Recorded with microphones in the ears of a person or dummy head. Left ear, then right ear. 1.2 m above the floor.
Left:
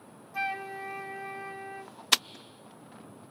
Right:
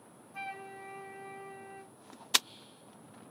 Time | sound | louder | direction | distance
0.3 | a flute | left 9 dB | 15° left (ahead or behind) | 1.1 m